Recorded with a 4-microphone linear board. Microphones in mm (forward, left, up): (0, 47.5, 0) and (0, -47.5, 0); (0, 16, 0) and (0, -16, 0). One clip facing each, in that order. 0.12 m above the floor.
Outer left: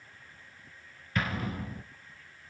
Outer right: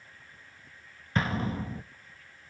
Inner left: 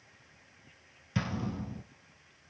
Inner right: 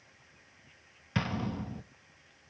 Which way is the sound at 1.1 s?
30° right (ahead or behind).